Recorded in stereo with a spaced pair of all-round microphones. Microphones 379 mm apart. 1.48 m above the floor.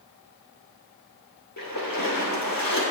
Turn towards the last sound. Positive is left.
turn(degrees=60)  # may be behind; listen again after turning